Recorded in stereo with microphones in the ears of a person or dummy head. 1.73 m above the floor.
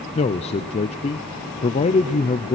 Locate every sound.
0.1 s a man speaking: 30° left (ahead or behind), 0.6 m